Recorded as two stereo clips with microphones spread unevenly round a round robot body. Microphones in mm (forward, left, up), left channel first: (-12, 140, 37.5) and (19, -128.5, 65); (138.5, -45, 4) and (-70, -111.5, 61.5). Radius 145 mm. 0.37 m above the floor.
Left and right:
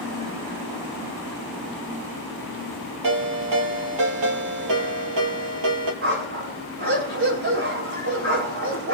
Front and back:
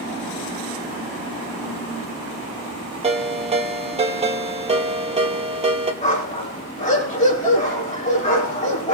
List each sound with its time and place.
3.0 s a ringtone: 100° right, 4.5 m
6.0 s a dog barking: 40° right, 7 m